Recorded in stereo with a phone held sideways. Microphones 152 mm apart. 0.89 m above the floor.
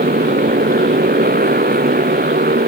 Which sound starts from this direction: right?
A motorcycle, at 0.0 s.